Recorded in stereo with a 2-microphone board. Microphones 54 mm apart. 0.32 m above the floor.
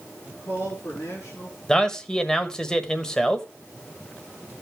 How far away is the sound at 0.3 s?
About 5 m.